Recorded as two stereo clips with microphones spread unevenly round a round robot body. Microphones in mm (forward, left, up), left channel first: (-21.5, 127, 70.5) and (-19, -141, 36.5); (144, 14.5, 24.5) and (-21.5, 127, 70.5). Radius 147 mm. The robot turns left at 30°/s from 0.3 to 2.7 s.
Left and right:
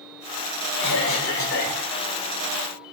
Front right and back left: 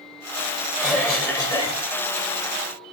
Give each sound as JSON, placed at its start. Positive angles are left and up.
{"t": 0.8, "sound": "a cough", "azimuth_deg": 55, "distance_m": 3.0}